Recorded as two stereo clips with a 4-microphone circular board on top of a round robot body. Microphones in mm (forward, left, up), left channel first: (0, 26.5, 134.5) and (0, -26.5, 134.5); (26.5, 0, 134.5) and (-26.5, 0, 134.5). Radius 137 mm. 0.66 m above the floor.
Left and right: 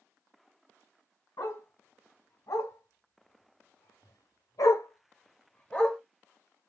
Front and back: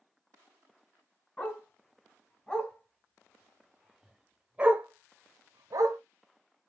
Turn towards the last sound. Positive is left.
turn(degrees=175)